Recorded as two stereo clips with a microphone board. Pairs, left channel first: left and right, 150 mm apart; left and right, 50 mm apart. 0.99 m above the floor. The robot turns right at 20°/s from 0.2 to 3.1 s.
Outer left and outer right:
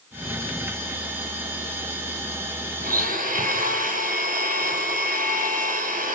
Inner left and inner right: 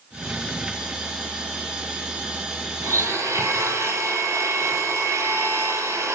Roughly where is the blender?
Right.